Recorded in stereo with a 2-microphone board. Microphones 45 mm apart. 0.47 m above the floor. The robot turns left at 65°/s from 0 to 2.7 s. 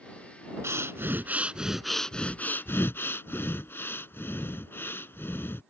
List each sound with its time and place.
0.6 s breathing: 100° right; by 5.6 s 125° left